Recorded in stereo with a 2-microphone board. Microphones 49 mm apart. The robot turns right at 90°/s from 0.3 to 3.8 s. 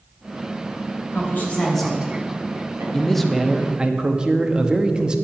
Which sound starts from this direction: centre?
A man speaking, at 2.9 s.